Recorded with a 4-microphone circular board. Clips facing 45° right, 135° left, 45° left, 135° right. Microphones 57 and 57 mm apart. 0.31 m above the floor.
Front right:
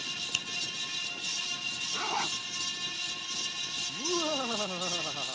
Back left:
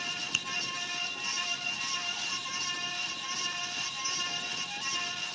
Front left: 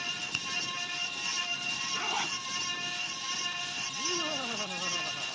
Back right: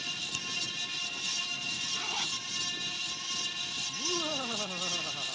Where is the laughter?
50° right.